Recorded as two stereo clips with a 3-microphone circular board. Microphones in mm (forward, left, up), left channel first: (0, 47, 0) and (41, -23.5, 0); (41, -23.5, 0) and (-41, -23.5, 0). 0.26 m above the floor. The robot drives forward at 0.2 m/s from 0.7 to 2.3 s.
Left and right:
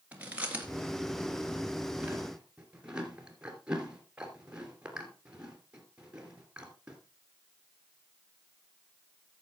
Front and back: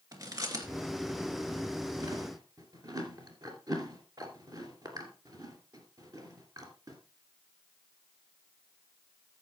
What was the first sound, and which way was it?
Chewing, 130° right.